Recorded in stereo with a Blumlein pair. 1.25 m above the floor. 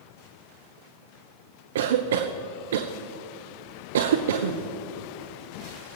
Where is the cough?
60° right, 0.6 m.